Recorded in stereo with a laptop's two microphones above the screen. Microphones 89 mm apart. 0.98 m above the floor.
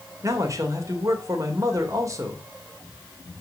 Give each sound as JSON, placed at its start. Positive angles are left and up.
{"t": 0.2, "sound": "a man speaking", "side_deg": -40, "distance_m": 3.0}